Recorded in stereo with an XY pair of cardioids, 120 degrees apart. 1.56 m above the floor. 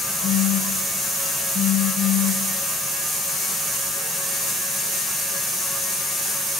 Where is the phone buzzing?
50° left, 1.6 m.